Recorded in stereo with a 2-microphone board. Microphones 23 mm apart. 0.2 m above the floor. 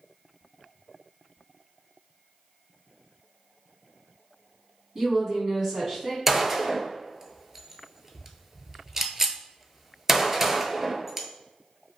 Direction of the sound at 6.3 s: 20° right (ahead or behind).